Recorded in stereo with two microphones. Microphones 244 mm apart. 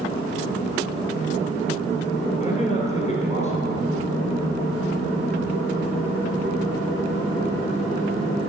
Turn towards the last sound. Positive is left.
turn(degrees=30)  # may be behind; listen again after turning